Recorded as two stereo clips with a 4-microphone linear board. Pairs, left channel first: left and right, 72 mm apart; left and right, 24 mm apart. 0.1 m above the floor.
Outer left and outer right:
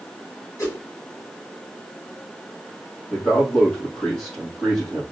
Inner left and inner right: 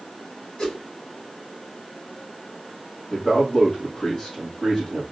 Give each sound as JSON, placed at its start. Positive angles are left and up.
{"t": 0.6, "sound": "a whoosh", "side_deg": 45, "distance_m": 3.0}
{"t": 3.1, "sound": "a man speaking", "side_deg": 15, "distance_m": 3.0}